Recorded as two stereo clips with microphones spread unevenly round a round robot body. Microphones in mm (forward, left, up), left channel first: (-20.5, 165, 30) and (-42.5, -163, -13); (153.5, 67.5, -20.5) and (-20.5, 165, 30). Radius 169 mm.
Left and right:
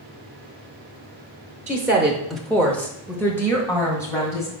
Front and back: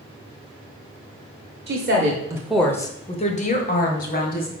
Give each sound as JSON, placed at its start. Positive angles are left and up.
{"t": 1.7, "sound": "a woman speaking", "azimuth_deg": -170, "distance_m": 1.1}